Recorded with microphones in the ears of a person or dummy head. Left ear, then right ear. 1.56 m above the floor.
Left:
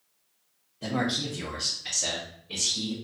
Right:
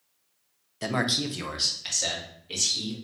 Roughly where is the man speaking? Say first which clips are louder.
Right 3 dB; right.